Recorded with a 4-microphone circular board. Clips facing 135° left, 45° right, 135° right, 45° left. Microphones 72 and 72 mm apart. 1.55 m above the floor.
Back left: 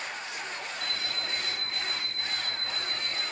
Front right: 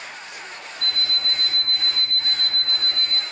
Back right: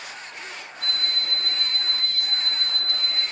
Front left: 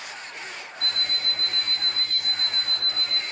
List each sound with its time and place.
0.8 s an alarm clock: 55° right, 5.5 m